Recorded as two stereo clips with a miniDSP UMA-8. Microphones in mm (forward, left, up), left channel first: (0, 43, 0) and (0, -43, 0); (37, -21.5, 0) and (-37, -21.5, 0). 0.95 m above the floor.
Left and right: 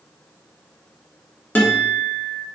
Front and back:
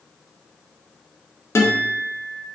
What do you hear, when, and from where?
1.6 s a guitar: 30° left, 0.7 m